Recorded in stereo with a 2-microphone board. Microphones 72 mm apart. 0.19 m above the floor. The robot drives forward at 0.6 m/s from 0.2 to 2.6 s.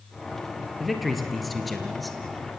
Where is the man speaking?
Centre (ahead or behind), 3.5 m.